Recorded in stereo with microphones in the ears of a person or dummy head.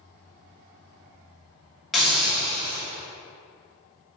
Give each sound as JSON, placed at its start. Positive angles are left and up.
{"t": 1.9, "sound": "a hiss", "side_deg": 0, "distance_m": 3.0}